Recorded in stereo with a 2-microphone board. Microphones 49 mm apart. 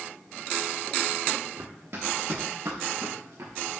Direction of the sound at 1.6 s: 60° right (ahead or behind).